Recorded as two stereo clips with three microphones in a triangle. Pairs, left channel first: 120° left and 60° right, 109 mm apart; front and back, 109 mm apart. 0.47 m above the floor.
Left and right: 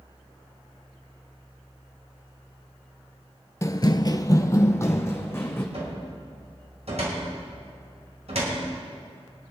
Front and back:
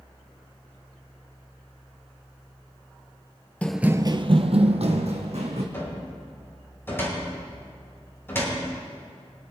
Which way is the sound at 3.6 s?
70° left.